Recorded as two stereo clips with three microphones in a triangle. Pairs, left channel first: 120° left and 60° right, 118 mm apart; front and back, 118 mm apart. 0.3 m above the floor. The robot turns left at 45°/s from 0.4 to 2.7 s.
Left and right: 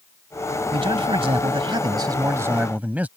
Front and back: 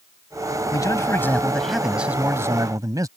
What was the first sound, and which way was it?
A man speaking, 45° right.